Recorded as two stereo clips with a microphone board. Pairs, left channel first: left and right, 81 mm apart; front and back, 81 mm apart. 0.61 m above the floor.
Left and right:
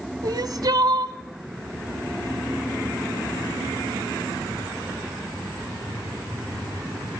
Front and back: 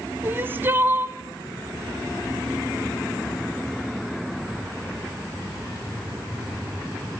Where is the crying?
120° right, 0.9 m.